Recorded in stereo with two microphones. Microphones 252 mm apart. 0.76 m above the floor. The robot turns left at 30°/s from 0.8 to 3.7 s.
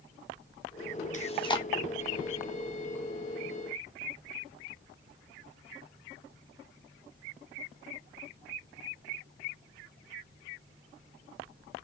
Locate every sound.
1.1 s chewing: 30° left (ahead or behind), 0.8 m; by 1.6 s 15° left (ahead or behind), 0.8 m